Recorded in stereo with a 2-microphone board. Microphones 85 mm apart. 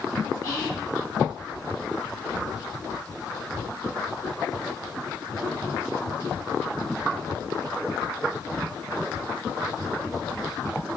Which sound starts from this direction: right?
Whispering, at 0.4 s.